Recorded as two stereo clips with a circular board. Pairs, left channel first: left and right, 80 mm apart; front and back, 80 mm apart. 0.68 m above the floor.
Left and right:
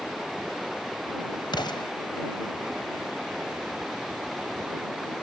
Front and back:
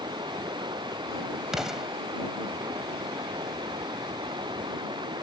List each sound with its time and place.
0.0 s running water: straight behind
1.5 s an explosion: 95° left